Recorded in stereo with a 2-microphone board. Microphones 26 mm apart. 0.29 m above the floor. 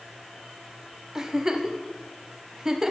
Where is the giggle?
20° right (ahead or behind), 0.6 m.